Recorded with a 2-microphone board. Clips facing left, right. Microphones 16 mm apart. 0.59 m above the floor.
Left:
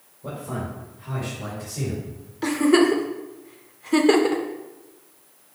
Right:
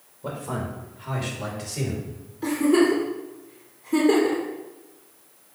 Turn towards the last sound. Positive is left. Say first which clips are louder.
# left 2 dB
turn(degrees=45)  # may be behind; listen again after turning